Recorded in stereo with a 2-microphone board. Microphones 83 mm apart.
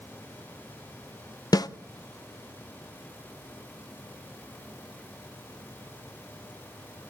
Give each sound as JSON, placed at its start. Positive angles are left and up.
{"t": 1.5, "sound": "a snare drum", "side_deg": 55, "distance_m": 0.7}